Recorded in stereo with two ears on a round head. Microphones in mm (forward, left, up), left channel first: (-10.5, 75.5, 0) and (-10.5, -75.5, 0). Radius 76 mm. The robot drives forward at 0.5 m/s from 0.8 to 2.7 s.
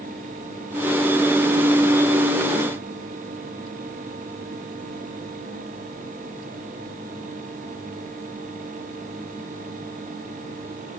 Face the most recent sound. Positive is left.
No sound to turn to.